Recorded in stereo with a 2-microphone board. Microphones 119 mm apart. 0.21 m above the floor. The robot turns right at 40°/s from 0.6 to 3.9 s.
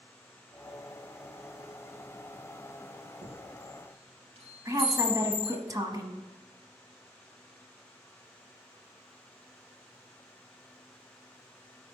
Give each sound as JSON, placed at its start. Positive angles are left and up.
{"t": 3.2, "sound": "a chime", "side_deg": -80, "distance_m": 3.0}
{"t": 4.7, "sound": "a woman speaking", "side_deg": -30, "distance_m": 1.1}